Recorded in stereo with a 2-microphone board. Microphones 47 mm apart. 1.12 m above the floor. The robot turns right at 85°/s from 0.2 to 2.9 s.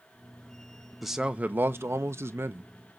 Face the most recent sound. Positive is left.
turn(degrees=-20)